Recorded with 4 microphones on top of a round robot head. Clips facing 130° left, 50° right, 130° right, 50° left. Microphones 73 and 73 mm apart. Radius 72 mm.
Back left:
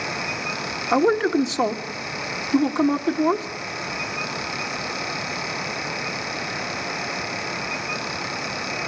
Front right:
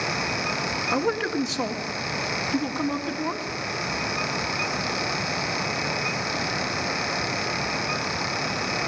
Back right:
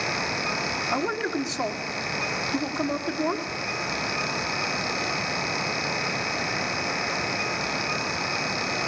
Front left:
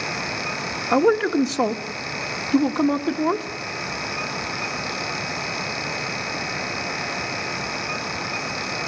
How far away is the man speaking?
About 1.5 m.